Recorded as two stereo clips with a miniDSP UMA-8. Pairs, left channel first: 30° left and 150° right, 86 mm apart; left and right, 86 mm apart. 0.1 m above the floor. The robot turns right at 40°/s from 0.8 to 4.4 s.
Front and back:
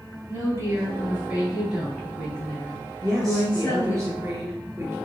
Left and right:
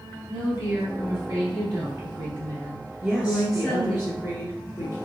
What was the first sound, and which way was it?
A woman speaking, 115° right.